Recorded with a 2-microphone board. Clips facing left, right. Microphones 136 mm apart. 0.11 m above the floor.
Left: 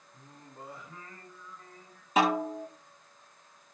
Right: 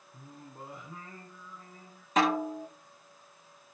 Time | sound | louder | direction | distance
0.1 | singing | right 2 dB | 25° right (ahead or behind) | 6 m
2.2 | a snare drum | left 1 dB | 10° left (ahead or behind) | 6 m